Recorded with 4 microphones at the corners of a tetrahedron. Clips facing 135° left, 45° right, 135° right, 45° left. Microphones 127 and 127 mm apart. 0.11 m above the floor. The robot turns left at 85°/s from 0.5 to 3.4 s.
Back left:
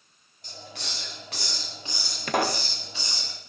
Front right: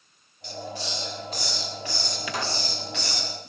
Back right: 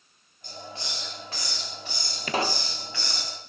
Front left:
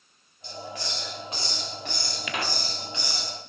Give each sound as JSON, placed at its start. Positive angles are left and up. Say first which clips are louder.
{"t": 0.4, "sound": "a hiss", "louder": "front right 8 dB, front left 3 dB", "azimuth_deg": -175, "distance_m": 9.5}
{"t": 2.3, "sound": "a pop", "louder": "back left 7 dB, back right 6 dB", "azimuth_deg": 175, "distance_m": 1.3}